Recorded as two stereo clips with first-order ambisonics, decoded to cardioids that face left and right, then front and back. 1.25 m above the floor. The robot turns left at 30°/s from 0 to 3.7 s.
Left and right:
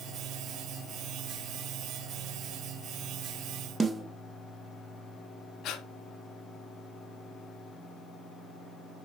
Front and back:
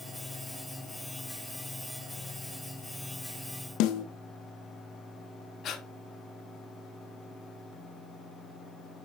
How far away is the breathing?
About 0.8 m.